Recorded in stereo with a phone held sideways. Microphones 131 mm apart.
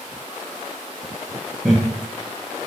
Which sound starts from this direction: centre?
Laughter, at 1.6 s.